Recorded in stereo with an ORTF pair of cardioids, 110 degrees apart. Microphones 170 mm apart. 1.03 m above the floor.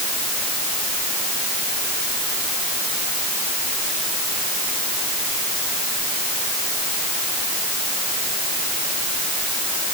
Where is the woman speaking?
I don't hear a woman speaking.